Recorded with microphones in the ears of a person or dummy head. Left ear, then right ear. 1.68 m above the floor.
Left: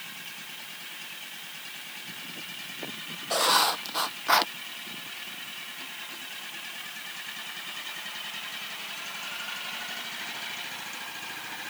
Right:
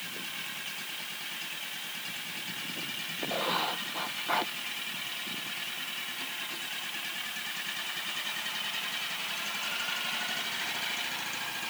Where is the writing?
55° left (ahead or behind).